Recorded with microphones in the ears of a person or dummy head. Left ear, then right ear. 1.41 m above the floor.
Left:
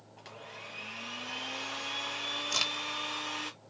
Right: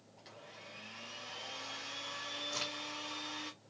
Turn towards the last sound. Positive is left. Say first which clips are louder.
# left 11 dB
turn(degrees=80)